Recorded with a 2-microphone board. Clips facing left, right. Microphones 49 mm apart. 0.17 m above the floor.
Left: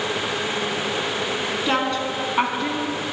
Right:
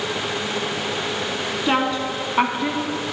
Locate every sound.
1.7 s a woman speaking: 10° right (ahead or behind), 1.6 m; by 3.1 s centre (ahead or behind), 1.1 m